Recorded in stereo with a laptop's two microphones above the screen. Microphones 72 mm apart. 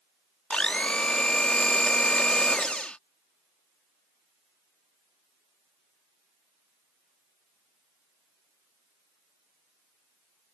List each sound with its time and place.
0.5 s a blender: 15° left (ahead or behind)